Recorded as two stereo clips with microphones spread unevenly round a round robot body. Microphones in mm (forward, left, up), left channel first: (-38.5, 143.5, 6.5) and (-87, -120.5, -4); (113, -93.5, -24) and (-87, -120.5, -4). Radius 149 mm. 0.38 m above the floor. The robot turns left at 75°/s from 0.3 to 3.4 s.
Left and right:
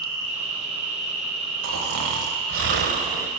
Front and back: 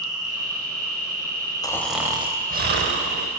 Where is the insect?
120° left, 2 m; by 3.4 s 110° right, 2 m.